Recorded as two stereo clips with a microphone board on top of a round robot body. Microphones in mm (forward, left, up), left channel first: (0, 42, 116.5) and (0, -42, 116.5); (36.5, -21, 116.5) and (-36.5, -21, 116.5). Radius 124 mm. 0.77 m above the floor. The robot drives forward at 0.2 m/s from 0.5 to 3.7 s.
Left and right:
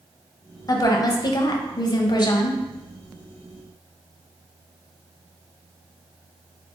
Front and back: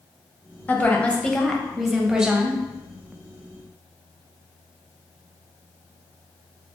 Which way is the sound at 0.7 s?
60° left.